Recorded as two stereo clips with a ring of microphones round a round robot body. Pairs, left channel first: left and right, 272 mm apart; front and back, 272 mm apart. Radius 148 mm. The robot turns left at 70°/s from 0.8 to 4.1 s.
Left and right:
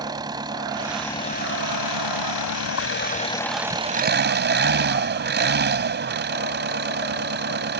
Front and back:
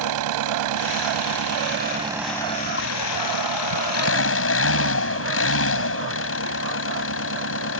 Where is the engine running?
170° right; by 7.8 s 40° right.